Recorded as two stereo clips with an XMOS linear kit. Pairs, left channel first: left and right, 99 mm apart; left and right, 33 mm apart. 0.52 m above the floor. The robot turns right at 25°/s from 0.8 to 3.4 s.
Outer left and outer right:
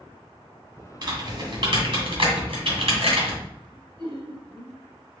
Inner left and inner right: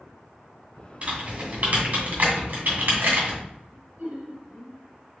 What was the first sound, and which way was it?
Typing on a keyboard, 50° right (ahead or behind).